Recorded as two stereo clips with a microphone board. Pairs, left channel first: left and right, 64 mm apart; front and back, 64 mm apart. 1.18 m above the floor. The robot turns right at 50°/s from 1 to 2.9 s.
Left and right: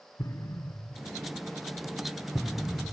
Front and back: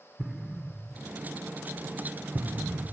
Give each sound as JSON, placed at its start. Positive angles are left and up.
{"t": 0.2, "sound": "an explosion", "azimuth_deg": 100}